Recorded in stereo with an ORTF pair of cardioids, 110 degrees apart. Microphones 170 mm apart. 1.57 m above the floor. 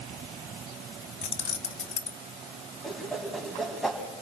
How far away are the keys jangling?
About 1.3 m.